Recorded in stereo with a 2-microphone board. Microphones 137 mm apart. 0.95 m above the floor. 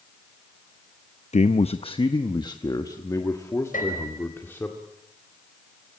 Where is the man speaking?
55° left (ahead or behind), 0.6 m; by 4.7 s 15° left (ahead or behind), 2 m.